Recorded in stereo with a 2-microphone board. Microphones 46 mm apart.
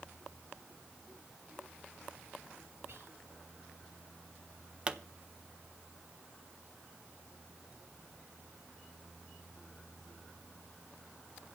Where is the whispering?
70° right (ahead or behind), 3.5 m.